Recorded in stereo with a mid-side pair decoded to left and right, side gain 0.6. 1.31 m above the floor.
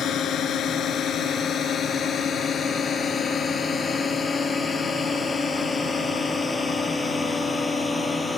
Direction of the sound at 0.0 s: 50° left.